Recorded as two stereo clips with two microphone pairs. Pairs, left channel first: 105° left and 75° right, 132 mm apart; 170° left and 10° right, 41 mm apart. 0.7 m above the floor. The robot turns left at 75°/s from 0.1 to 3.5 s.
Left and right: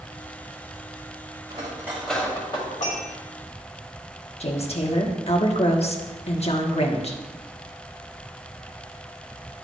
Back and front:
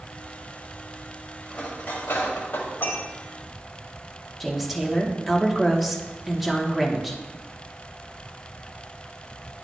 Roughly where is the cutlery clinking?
Behind right.